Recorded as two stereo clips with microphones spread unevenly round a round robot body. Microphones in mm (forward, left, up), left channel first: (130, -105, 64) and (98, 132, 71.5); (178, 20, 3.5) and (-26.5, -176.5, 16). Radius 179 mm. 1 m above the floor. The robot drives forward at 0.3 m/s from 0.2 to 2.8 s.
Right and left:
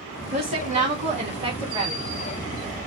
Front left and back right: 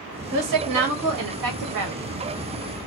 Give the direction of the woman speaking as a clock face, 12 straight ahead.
6 o'clock.